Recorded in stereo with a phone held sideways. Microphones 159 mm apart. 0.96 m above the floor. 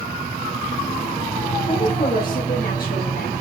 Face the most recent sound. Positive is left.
turn(degrees=70)  # may be behind; listen again after turning